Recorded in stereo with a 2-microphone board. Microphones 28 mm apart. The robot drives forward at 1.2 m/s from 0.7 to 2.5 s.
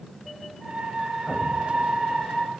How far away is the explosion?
About 2 m.